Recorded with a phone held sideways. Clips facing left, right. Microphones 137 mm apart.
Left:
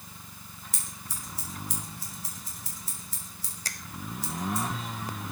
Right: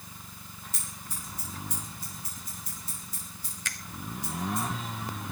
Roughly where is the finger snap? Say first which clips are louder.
Right 1 dB; left.